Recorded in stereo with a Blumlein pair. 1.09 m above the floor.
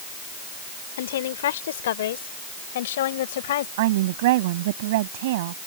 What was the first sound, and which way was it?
A woman speaking, 60° left.